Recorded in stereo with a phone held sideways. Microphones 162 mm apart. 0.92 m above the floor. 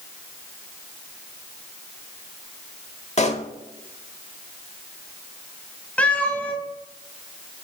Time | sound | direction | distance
3.2 | a pop | 45° left (ahead or behind) | 0.9 m
6.0 | a cat meowing | 10° left (ahead or behind) | 1.7 m